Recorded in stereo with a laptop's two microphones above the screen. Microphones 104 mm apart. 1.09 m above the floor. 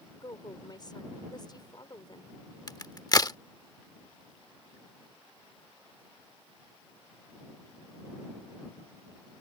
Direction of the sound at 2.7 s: 35° left (ahead or behind).